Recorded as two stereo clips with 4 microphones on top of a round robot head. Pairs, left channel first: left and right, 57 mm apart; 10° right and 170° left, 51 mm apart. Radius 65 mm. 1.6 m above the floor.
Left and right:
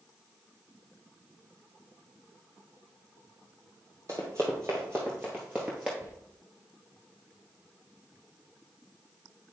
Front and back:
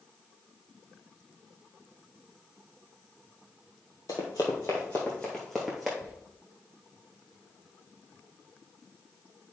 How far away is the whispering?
About 4.5 m.